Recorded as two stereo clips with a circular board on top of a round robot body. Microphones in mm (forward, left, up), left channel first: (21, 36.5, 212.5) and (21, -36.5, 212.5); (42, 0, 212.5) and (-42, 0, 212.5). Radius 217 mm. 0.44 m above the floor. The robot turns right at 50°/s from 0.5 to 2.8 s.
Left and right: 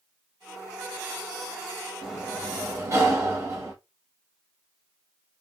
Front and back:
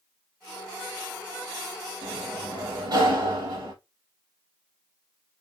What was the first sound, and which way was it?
A sliding door, 175° left.